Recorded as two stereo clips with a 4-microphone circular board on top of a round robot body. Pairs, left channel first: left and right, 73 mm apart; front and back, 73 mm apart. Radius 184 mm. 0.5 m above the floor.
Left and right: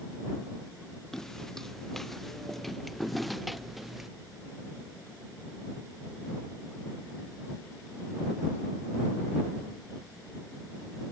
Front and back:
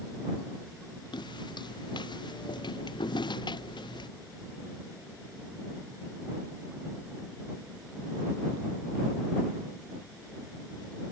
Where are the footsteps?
5° left; by 4.1 s 5° right.